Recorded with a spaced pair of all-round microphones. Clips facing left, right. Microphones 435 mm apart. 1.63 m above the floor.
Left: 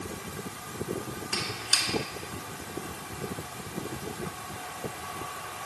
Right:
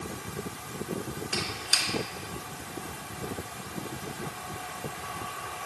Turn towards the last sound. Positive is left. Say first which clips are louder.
# right 1 dB
turn(degrees=15)  # may be behind; listen again after turning